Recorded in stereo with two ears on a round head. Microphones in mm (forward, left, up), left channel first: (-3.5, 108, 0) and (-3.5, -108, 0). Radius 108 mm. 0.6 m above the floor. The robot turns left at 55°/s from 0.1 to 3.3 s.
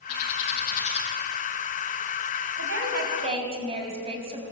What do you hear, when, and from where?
0.1 s a bird: 70° left (ahead or behind), 4.5 m; by 1.1 s 15° left (ahead or behind), 4.5 m
2.6 s a woman speaking: 115° right, 5 m; by 4.4 s 155° right, 5 m